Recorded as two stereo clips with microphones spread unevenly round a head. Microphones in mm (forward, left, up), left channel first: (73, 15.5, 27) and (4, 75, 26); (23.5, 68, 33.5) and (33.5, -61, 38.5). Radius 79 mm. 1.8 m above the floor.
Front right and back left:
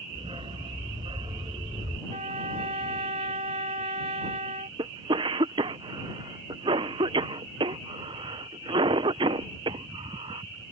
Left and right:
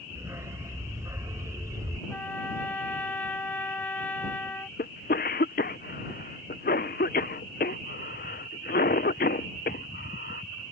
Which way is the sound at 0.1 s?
160° right.